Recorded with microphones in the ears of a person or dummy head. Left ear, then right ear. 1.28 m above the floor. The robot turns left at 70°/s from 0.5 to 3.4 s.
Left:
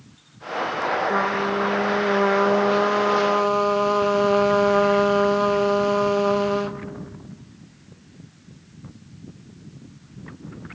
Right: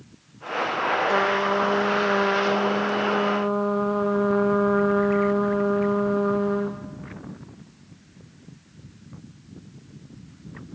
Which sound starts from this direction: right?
A trumpet, at 1.1 s.